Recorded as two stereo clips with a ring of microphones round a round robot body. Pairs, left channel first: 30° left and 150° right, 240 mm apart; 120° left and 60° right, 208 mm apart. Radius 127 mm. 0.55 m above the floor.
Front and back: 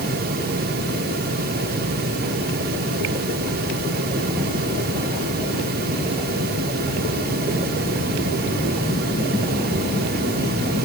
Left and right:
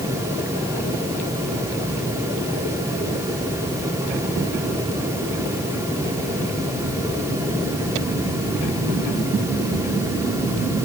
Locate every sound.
Only background noise.